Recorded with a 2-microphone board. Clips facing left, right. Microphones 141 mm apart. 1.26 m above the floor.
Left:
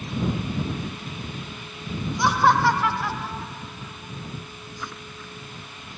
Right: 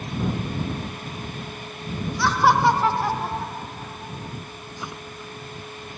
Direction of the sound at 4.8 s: 20° right (ahead or behind).